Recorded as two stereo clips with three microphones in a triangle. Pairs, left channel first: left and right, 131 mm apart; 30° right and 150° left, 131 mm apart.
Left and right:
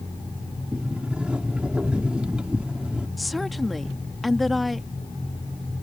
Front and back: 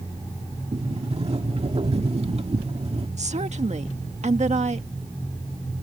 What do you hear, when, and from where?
0.7 s a sliding door: 170° right
3.2 s a woman speaking: straight behind